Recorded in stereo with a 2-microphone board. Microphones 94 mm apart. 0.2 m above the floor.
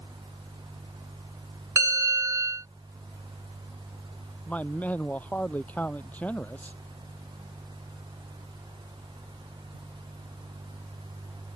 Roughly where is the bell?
Right.